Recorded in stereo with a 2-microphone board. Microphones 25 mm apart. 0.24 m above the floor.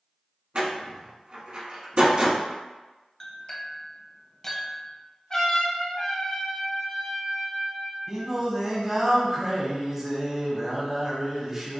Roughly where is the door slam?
Right.